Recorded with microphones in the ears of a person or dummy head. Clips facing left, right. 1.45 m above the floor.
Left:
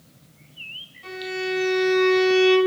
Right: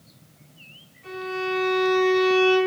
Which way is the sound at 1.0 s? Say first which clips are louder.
Even; 85° left.